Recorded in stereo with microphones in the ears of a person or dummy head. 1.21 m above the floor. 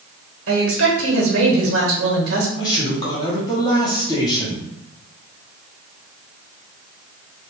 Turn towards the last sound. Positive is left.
turn(degrees=20)  # may be behind; listen again after turning